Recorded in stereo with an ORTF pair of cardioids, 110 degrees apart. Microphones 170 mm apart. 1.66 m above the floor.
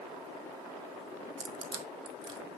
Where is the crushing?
35° right, 1.6 m.